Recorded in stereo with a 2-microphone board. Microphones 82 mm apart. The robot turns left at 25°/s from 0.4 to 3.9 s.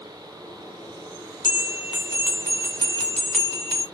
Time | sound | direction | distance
1.4 | a bell | 60° left | 1.6 m